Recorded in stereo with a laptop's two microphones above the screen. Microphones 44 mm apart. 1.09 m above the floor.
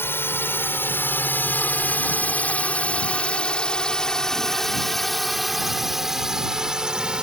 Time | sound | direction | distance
0.0 | a drone | 55° left (ahead or behind) | ?